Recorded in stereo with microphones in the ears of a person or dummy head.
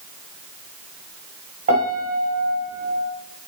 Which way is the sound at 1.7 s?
45° right (ahead or behind).